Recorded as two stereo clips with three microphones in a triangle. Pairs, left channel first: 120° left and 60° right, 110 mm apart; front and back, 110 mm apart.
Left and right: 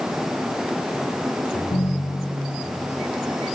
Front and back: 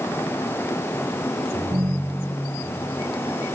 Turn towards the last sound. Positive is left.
turn(degrees=140)